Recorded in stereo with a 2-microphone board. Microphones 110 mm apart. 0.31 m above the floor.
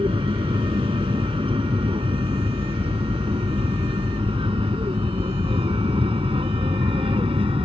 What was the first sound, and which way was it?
An aircraft, 50° right (ahead or behind).